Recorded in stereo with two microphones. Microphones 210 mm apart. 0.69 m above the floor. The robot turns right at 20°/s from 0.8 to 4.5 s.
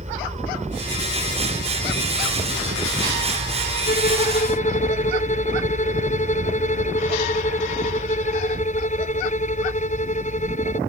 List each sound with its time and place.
0.0 s a helicopter: 140° right; by 10.9 s 65° right
3.9 s a violin: 50° left (ahead or behind); by 10.8 s 35° left (ahead or behind)